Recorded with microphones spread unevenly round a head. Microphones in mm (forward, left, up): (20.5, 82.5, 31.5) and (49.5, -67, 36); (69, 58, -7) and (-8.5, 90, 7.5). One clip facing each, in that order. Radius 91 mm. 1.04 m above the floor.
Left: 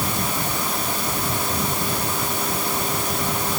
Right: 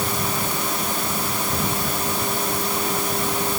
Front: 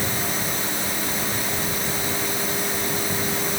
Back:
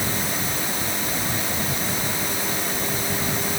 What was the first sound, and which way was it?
Only background noise.